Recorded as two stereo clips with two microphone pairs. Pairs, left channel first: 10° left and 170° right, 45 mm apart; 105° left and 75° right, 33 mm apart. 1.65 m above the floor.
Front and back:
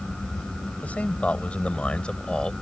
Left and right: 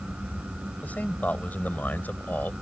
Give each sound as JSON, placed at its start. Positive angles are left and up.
{"t": 0.8, "sound": "a man speaking", "azimuth_deg": 65}